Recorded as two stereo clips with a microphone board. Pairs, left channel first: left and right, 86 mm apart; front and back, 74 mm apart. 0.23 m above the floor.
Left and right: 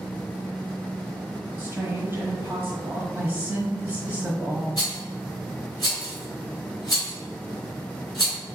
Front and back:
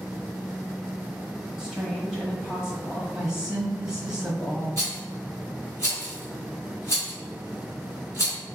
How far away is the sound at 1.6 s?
About 1.2 m.